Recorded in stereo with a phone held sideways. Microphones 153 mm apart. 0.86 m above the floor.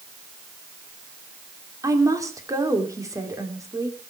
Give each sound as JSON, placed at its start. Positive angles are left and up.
{"t": 1.8, "sound": "a woman speaking", "side_deg": -20, "distance_m": 3.0}